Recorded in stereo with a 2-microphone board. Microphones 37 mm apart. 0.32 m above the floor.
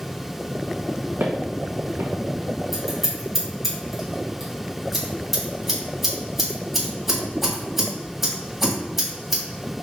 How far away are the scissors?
About 1.7 m.